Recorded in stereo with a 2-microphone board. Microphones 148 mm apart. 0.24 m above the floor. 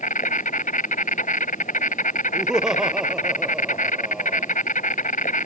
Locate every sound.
0.0 s an insect: 65° left (ahead or behind)
2.3 s laughter: 5° right (ahead or behind)